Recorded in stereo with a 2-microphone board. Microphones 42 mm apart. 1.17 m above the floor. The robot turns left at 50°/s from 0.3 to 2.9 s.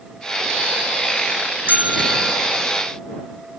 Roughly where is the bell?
Behind right.